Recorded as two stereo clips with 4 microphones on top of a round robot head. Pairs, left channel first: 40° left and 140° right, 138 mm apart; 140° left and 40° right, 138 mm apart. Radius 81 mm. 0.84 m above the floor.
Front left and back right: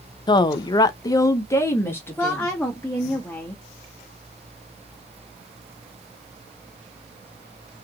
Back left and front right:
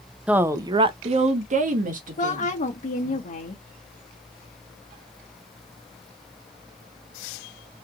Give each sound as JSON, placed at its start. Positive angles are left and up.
{"t": 0.3, "sound": "a woman speaking", "azimuth_deg": 35, "distance_m": 0.6}
{"t": 2.2, "sound": "a woman speaking", "azimuth_deg": 120, "distance_m": 0.9}